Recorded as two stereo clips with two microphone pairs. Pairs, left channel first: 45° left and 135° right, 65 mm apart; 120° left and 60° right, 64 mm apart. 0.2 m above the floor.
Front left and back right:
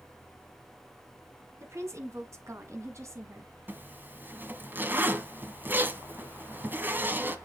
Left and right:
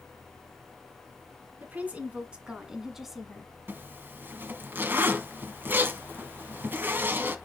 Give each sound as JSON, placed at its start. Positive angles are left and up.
{"t": 1.6, "sound": "a woman speaking", "azimuth_deg": -115, "distance_m": 2.0}
{"t": 3.7, "sound": "a zipper", "azimuth_deg": -95, "distance_m": 1.1}